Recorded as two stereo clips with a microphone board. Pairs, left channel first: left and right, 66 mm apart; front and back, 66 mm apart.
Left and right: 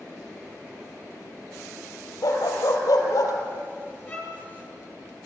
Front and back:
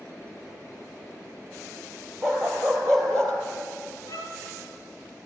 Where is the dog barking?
90° left, 4 m; by 3.3 s 80° left, 4 m.